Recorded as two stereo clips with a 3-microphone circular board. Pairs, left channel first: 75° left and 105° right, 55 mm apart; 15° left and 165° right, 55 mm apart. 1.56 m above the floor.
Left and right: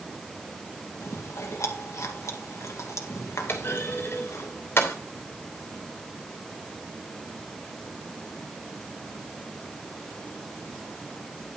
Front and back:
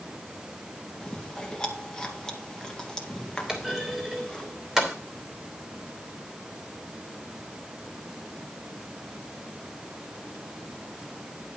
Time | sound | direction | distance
1.0 | chewing | 90° left | 2 m
3.5 | a clunk | 115° left | 3 m